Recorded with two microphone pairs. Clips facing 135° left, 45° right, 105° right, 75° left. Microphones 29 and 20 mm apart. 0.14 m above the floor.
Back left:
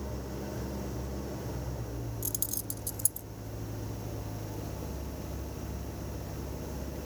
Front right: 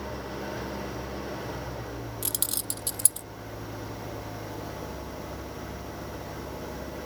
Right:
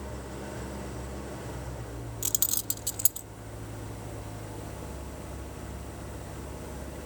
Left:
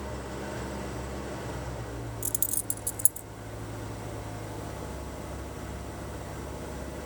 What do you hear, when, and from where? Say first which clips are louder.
0.0 s an engine running: front right 4 dB, left 3 dB; 5° right
2.2 s keys jangling: front right 5 dB, right 7 dB; 65° right